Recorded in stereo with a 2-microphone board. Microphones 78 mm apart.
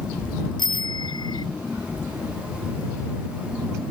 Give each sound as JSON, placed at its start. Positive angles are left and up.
{"t": 0.6, "sound": "a bicycle bell", "side_deg": 70}